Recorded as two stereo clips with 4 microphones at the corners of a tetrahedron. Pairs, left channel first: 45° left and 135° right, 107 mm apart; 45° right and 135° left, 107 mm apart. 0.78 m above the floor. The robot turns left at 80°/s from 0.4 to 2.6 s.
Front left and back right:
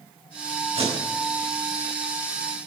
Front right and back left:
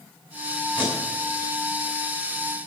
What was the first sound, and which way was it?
Tape being pulled, 120° right.